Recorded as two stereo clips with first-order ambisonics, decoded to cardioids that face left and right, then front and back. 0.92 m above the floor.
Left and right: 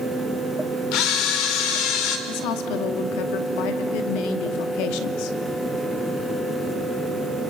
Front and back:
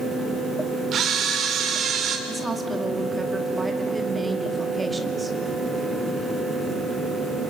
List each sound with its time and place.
0.9 s a camera shutter: 120° left, 3 m
2.3 s a woman speaking: 100° left, 2 m